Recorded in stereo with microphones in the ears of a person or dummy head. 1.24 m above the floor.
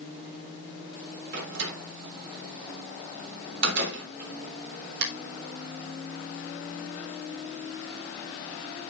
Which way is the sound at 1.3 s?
70° right (ahead or behind).